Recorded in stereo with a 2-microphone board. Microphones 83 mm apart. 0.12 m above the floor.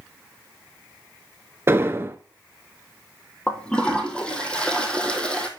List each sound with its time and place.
1.7 s an explosion: 30° right (ahead or behind), 0.7 m
3.5 s a toilet flushing: 10° left (ahead or behind), 1.6 m